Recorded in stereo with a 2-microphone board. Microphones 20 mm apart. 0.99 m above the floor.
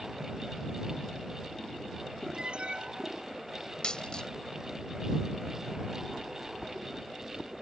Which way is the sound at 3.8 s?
50° left (ahead or behind).